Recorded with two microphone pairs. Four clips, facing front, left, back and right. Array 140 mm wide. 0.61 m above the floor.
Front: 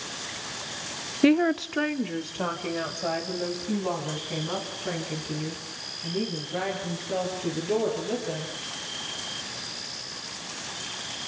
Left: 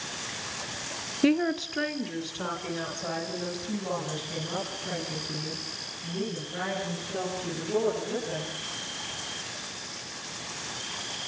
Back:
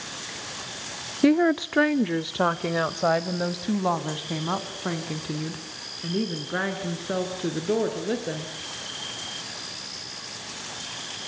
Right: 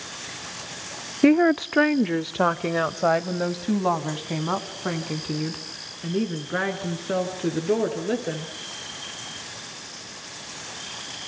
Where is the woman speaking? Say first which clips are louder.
Right 7 dB, back 1 dB; 90° right, 0.6 m; by 8.5 s 125° right, 8.5 m.